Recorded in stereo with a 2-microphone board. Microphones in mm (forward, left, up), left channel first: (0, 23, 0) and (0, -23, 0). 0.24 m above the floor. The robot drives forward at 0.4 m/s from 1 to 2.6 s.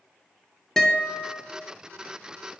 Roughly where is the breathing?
I don't hear breathing.